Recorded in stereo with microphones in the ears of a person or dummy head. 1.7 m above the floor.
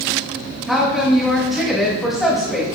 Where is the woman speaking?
5° left (ahead or behind), 2 m.